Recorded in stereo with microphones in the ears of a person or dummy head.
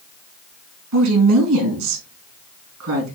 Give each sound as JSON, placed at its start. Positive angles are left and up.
{"t": 0.9, "sound": "a woman speaking", "side_deg": -80, "distance_m": 3.0}